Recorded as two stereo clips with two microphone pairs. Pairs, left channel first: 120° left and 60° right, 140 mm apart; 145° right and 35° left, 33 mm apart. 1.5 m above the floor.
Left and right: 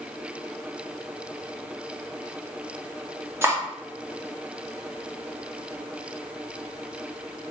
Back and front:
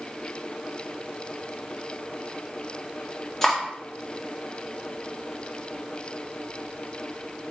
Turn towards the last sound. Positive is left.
turn(degrees=-100)